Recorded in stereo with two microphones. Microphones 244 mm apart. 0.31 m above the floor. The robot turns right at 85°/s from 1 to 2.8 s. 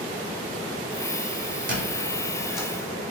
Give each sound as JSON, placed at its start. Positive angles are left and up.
{"t": 1.7, "sound": "a squeak", "side_deg": -55, "distance_m": 1.2}